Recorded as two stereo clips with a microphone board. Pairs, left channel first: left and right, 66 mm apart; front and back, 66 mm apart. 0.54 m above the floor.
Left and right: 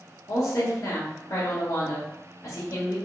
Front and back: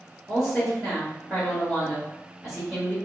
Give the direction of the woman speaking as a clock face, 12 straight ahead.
9 o'clock.